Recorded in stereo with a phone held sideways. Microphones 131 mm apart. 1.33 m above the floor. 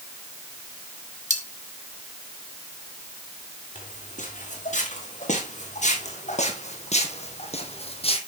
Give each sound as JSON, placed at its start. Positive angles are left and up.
{"t": 1.3, "sound": "cutlery clinking", "side_deg": -70, "distance_m": 1.7}
{"t": 3.8, "sound": "footsteps", "side_deg": 70, "distance_m": 4.0}